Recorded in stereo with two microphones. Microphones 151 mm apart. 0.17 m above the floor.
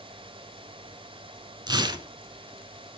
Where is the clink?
No clink in this recording.